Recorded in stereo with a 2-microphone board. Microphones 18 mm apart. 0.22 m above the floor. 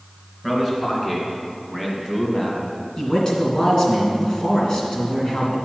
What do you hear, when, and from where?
0.4 s a man speaking: 10° left (ahead or behind), 2.5 m; by 2.6 s 25° left (ahead or behind), 1.5 m
3.0 s a man speaking: 35° left (ahead or behind), 2.5 m